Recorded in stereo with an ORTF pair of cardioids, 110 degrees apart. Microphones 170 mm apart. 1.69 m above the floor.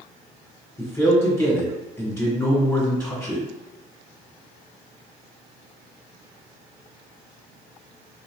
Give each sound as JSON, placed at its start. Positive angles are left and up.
{"t": 0.8, "sound": "a man speaking", "azimuth_deg": 15, "distance_m": 1.4}